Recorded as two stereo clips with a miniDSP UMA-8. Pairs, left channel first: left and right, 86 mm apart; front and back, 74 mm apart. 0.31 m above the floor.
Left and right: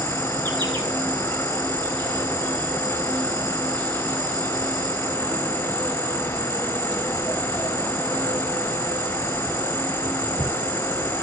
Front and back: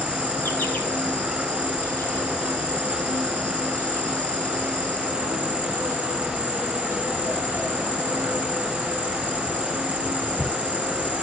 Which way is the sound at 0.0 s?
65° right.